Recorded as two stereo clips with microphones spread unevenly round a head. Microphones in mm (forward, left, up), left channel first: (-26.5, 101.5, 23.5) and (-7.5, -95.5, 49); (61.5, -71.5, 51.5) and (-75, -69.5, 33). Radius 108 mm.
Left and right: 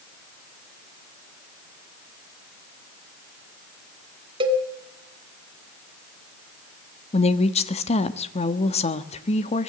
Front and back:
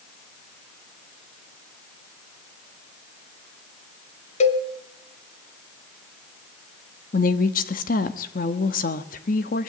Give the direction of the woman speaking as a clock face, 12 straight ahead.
11 o'clock.